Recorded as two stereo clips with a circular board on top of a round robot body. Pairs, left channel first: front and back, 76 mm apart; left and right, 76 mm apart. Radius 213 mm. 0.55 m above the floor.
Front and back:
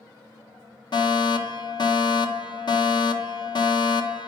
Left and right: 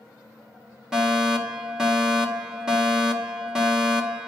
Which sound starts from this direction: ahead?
A fire alarm, at 0.9 s.